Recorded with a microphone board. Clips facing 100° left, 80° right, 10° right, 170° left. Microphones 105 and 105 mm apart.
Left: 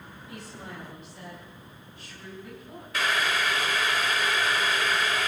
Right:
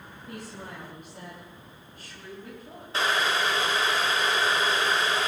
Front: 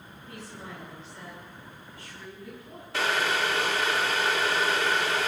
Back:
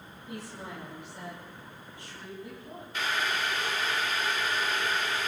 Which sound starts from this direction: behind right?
A woman speaking, at 0.3 s.